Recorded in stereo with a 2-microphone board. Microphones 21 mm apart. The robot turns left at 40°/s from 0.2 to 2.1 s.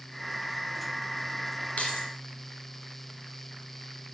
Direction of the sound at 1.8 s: 75° left (ahead or behind).